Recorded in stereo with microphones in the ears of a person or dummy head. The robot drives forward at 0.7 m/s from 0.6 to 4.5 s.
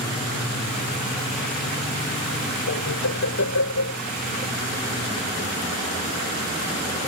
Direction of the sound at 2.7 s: 85° left.